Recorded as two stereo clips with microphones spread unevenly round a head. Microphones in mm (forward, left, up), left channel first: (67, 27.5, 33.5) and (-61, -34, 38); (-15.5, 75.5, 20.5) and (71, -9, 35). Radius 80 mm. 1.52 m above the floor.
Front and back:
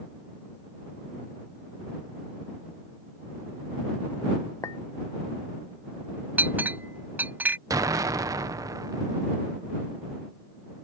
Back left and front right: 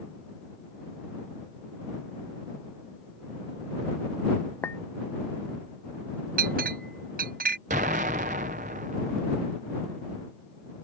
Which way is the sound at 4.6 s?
70° left.